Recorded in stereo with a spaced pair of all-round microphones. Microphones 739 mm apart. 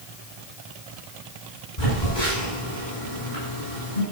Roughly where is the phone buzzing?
Left.